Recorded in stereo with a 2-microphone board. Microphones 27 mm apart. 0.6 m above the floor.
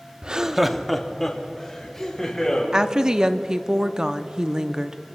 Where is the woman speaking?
25° right (ahead or behind), 0.6 m.